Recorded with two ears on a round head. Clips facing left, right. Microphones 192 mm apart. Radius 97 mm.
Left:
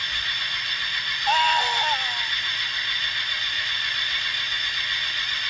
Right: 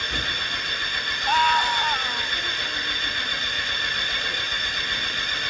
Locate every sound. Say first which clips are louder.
0.0 s an engine running: right 9 dB; 50° right (ahead or behind)
1.3 s a scream: right 1 dB; 25° left (ahead or behind)